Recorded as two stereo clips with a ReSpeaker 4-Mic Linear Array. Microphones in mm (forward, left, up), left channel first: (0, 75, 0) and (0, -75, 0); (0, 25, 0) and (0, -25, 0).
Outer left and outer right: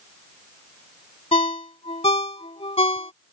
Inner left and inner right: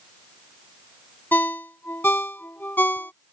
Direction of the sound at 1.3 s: 40° left (ahead or behind).